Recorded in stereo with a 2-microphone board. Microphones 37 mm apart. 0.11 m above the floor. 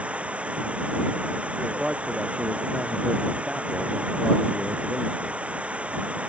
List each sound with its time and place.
0.0 s running water: 35° right (ahead or behind)
1.8 s a man speaking: 25° right (ahead or behind)